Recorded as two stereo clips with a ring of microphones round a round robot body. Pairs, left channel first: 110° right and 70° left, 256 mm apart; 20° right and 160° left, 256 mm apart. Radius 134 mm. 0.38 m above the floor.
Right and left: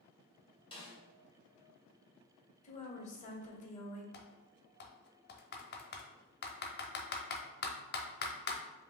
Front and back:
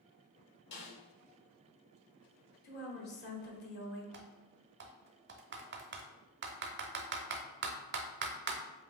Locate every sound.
0.7 s a snare drum: 50° right, 2 m
2.6 s a woman speaking: 60° right, 1.3 m
4.1 s typing on a keyboard: 160° right, 0.7 m